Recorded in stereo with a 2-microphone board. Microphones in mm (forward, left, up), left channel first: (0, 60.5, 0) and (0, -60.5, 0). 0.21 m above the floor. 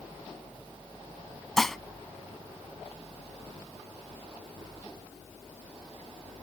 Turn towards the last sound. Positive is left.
turn(degrees=5)  # may be behind; listen again after turning